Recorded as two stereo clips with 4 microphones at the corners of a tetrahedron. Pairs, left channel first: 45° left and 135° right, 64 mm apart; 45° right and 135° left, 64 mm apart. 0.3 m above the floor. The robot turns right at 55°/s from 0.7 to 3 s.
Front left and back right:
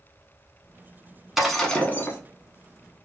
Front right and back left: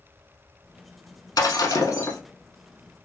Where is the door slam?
No door slam in this recording.